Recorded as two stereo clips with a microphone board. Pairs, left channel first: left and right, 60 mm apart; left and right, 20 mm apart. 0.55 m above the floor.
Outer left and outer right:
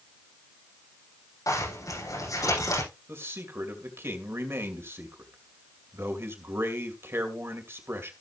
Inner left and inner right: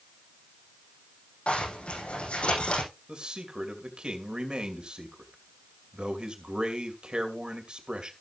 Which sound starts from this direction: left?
A zipper, at 1.5 s.